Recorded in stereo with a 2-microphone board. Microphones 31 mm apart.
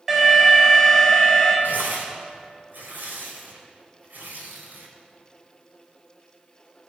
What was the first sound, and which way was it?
An alarm, 20° right (ahead or behind).